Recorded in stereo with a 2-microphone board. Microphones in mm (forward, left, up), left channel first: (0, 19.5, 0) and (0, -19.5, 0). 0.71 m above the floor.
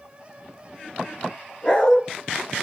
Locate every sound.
1.6 s a dog barking: 25° left (ahead or behind), 4.5 m